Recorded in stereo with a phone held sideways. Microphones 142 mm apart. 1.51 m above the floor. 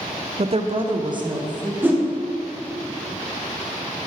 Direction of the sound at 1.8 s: 15° right (ahead or behind).